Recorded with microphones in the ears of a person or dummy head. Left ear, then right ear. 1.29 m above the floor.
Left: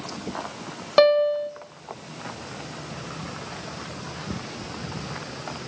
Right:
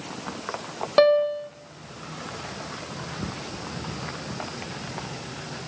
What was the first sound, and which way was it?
A piano, 10° left (ahead or behind).